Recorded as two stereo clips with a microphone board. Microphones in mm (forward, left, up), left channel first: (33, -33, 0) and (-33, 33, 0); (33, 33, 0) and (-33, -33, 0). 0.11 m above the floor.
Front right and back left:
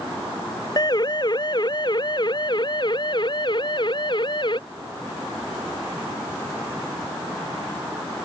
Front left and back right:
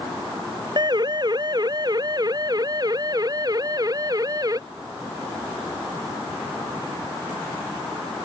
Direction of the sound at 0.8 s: 90° right.